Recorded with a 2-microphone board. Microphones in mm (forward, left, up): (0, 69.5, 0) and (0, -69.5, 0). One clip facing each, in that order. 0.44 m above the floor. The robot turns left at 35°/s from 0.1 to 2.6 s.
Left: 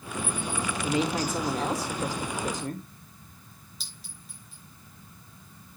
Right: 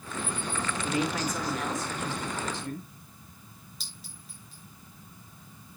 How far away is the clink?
About 4.5 m.